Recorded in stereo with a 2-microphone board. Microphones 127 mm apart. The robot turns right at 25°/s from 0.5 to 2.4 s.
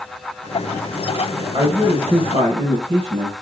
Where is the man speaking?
30° right (ahead or behind), 2.5 m; by 3.3 s 50° right (ahead or behind), 2.5 m.